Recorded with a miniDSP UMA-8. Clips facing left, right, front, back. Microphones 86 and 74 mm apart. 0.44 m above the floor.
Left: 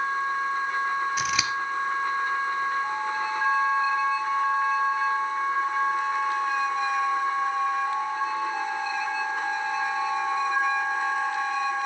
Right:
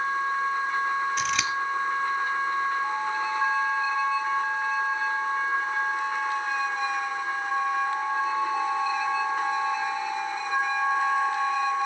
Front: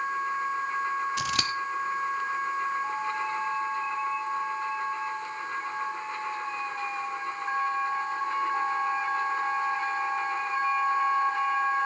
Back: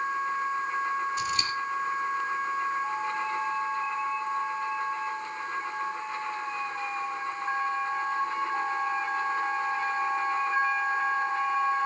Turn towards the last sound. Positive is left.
turn(degrees=5)